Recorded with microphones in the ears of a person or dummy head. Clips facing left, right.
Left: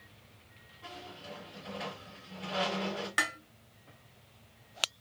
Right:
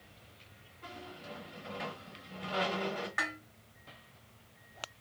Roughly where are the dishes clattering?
Left.